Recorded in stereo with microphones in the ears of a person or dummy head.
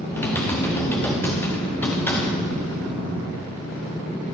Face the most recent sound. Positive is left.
turn(degrees=10)  # may be behind; listen again after turning